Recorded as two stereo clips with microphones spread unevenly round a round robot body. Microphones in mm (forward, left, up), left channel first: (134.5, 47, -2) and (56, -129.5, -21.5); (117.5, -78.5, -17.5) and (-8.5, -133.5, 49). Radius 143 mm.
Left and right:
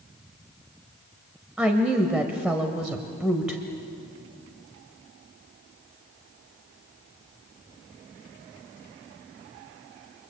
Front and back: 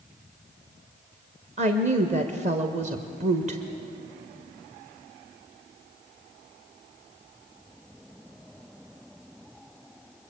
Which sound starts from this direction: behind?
A woman speaking, at 1.6 s.